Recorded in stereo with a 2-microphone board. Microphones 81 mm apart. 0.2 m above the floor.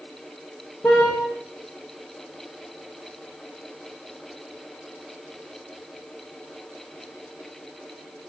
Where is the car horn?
20° left (ahead or behind), 8.5 m.